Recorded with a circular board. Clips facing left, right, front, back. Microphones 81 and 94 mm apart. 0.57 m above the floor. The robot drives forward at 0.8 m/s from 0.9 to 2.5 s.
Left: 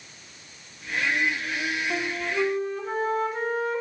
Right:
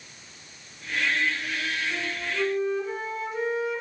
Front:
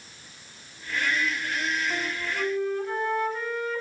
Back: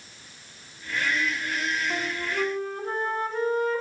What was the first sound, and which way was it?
A flute, 105° left.